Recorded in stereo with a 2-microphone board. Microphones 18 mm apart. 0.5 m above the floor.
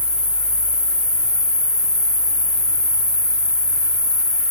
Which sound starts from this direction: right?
An insect, at 0.0 s.